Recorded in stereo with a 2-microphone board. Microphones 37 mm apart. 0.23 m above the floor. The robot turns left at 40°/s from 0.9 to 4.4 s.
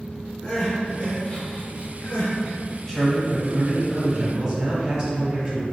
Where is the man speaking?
30° left, 1.2 m; by 5.6 s 30° right, 1.2 m.